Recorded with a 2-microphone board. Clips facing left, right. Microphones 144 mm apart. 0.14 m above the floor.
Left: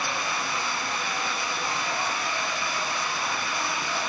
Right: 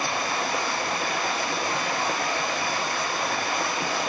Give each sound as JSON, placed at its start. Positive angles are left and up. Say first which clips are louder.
{"t": 0.0, "sound": "running water", "louder": "right 3 dB", "side_deg": -50, "distance_m": 1.6}